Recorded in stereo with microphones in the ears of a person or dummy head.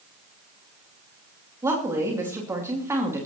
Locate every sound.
1.6 s a woman speaking: 15° right (ahead or behind), 2.5 m